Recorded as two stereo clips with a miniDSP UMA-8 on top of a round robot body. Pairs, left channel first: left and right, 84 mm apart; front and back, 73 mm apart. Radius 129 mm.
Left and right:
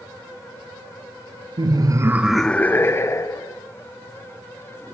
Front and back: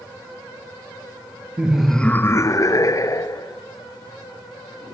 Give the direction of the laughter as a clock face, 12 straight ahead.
4 o'clock.